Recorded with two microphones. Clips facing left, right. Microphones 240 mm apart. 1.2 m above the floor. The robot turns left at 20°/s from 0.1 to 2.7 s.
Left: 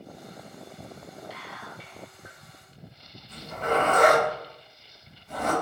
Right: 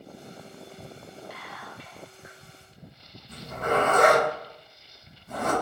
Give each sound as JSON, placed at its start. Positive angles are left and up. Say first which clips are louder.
{"t": 1.3, "sound": "whispering", "louder": "left 1 dB", "side_deg": -60, "distance_m": 1.2}
{"t": 3.3, "sound": "a zipper", "louder": "even", "side_deg": -55, "distance_m": 1.6}